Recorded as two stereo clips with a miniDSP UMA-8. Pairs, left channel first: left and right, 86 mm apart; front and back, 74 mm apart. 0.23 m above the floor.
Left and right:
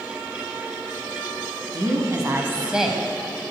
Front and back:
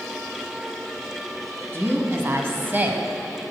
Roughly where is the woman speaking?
Behind right.